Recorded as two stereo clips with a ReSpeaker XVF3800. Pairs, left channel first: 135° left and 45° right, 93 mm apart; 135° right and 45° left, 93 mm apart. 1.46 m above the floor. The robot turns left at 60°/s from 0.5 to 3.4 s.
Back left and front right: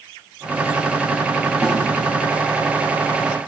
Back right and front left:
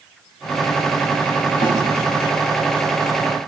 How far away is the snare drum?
About 2.5 m.